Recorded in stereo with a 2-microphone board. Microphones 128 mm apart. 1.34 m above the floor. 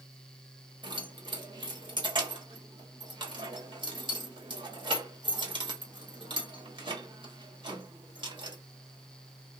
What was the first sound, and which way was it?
Keys jangling, 40° right (ahead or behind).